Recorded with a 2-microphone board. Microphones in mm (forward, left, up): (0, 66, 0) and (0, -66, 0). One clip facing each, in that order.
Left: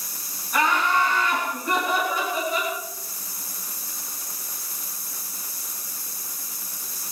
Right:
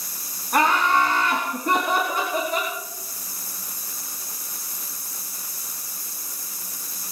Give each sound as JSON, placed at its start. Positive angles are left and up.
{"t": 0.5, "sound": "laughter", "side_deg": -70, "distance_m": 3.5}